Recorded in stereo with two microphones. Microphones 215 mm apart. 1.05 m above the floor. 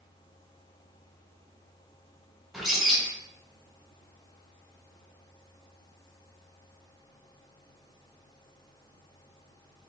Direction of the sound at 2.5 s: Centre (ahead or behind).